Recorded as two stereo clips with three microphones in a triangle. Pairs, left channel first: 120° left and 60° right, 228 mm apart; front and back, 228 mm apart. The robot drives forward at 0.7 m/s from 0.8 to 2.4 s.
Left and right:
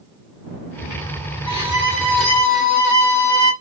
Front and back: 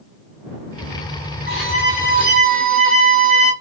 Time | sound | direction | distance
1.5 | a violin | 175° right | 1.4 m